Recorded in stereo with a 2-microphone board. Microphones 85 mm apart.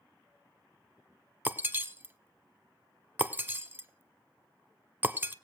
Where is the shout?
No shout in this recording.